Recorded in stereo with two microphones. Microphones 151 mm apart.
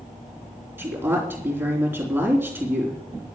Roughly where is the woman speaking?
Centre.